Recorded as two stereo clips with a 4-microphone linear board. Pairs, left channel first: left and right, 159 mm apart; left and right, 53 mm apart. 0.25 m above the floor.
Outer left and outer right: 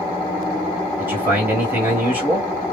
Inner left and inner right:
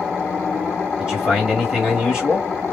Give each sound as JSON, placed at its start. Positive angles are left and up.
{"t": 1.0, "sound": "a man speaking", "side_deg": -15, "distance_m": 1.4}